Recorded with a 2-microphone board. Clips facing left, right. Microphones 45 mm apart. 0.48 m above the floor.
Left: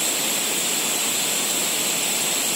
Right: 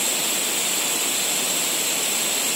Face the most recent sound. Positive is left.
No sound to turn to.